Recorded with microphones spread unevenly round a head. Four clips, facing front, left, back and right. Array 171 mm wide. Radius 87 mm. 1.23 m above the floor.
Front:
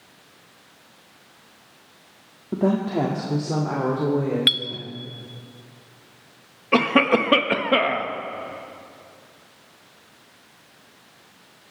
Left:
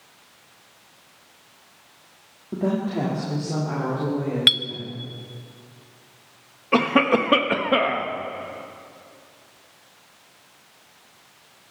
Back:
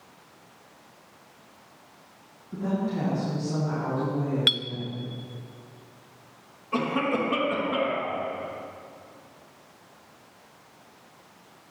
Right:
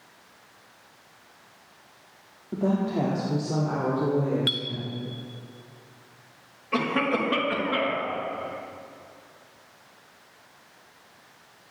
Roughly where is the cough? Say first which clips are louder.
Left 6 dB, front 7 dB; ahead left.